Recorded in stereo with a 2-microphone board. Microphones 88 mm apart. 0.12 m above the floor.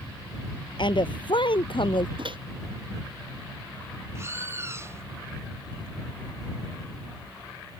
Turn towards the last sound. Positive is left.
turn(degrees=-30)  # may be behind; listen again after turning